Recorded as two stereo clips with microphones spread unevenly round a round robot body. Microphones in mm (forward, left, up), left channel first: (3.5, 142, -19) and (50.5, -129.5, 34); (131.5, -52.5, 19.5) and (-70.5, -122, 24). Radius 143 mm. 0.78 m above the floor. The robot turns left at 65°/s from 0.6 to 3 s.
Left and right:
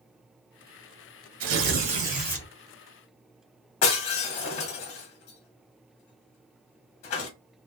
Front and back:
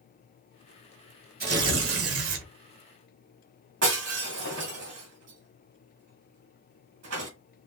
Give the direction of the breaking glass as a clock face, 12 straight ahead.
7 o'clock.